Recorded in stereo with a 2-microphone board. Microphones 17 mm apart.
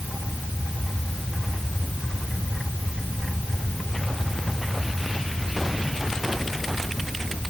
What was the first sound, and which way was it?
Only background noise.